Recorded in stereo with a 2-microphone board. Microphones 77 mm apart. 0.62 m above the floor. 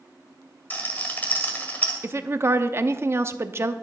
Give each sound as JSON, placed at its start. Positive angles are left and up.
{"t": 0.7, "sound": "a rattle", "side_deg": 25, "distance_m": 1.9}
{"t": 2.0, "sound": "a woman speaking", "side_deg": -35, "distance_m": 0.6}